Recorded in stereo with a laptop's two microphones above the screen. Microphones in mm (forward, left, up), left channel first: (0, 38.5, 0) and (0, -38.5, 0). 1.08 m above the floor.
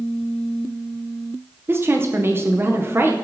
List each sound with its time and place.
1.7 s a woman speaking: 30° right (ahead or behind), 0.7 m